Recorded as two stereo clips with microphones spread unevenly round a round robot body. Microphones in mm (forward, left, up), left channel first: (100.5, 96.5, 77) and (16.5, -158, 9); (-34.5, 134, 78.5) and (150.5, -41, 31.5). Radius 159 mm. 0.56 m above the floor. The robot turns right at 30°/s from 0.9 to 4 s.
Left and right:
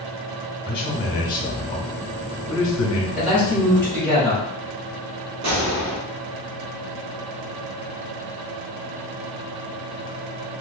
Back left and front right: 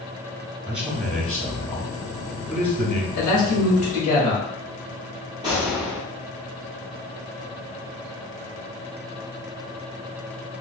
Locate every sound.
0.7 s a man speaking: 25° left, 1.1 m; by 3.1 s 90° left, 1.1 m
3.2 s a man speaking: straight behind, 1.3 m; by 4.4 s 155° right, 1.3 m
5.4 s a gunshot: 120° right, 1.0 m